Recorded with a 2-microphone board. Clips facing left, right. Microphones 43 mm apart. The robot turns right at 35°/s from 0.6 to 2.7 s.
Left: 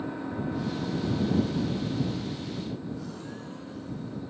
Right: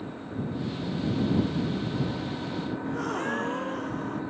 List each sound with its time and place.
0.0 s an engine running: 155° left; by 4.3 s 130° right
2.8 s a gasp: 60° right (ahead or behind)